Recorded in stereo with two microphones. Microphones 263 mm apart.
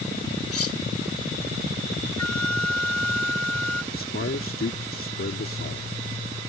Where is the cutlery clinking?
60° left (ahead or behind).